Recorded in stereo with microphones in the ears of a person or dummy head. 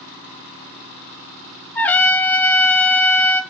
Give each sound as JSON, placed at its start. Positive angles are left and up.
{"t": 1.8, "sound": "a trumpet", "side_deg": 5, "distance_m": 1.9}